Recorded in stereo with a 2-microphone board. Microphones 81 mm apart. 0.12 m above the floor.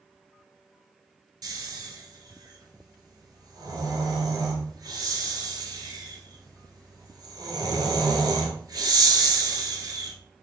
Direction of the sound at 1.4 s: 55° right (ahead or behind).